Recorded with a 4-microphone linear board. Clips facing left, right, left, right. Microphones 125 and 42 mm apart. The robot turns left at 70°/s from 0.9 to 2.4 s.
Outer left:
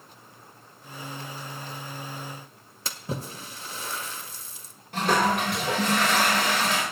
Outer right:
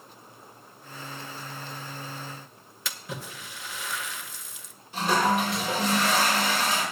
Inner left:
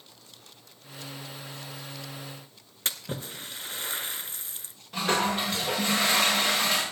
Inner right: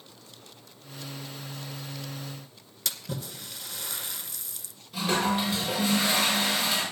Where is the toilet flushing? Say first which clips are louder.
Outer left 1 dB, even; 65° left (ahead or behind), 6 m.